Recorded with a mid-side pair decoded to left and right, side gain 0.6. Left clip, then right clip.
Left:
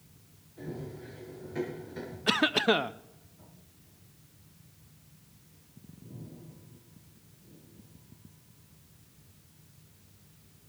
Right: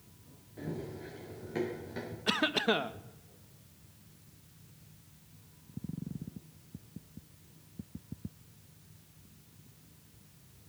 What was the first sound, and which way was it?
Running footsteps, 35° right.